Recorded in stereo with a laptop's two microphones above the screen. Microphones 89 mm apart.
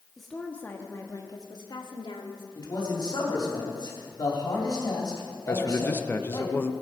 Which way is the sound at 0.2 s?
Centre (ahead or behind).